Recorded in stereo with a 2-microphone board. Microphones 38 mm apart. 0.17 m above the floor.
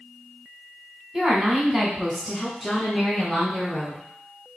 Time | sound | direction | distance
1.1 | a woman speaking | 20° right (ahead or behind) | 1.2 m